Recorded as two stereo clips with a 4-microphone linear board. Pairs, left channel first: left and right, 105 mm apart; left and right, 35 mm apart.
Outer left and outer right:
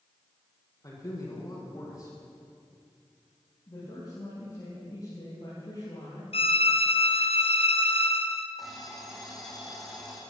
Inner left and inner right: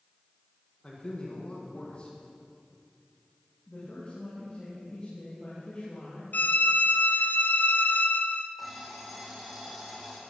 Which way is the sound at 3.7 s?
40° left (ahead or behind).